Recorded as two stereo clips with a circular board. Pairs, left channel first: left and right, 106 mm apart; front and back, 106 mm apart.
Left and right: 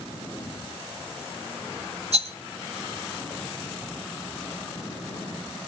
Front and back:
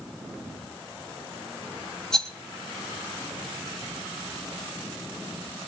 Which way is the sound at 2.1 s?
85° right.